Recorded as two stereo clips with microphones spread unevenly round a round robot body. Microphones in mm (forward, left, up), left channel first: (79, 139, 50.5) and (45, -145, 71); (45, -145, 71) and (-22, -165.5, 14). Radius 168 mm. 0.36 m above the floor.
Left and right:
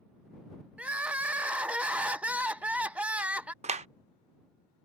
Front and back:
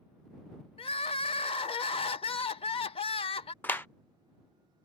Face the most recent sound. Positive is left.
turn(degrees=-135)